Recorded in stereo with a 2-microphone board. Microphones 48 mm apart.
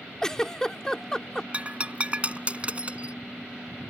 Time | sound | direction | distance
0.2 | a giggle | 10° left (ahead or behind) | ?
1.5 | breaking glass | 30° right (ahead or behind) | ?